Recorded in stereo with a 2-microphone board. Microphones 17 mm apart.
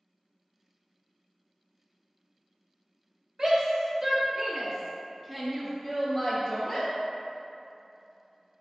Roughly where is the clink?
No clink in this recording.